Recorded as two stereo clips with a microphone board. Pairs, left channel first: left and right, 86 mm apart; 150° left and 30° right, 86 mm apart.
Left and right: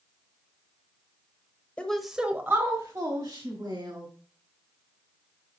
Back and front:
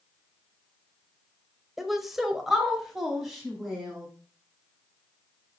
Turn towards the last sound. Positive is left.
turn(degrees=-115)